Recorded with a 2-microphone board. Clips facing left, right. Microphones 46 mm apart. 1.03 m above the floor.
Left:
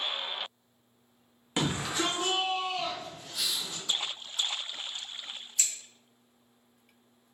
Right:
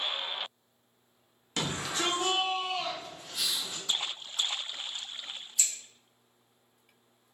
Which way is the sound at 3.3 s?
50° right (ahead or behind).